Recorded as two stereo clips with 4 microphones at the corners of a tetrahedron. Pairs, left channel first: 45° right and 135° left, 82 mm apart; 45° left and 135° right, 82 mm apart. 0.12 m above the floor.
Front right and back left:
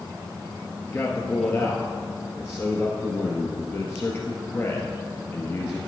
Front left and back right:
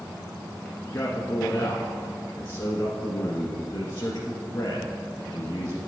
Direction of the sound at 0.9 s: 5° left.